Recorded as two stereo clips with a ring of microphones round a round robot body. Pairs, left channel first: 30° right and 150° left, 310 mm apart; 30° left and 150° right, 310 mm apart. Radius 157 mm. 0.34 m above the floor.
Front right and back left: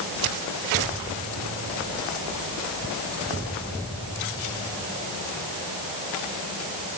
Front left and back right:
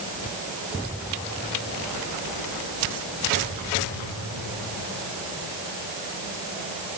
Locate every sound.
Only background noise.